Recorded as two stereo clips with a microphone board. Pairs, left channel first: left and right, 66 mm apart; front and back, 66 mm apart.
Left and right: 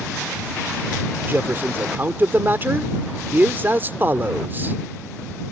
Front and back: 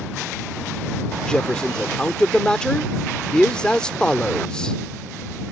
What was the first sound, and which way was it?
A man speaking, 70° right.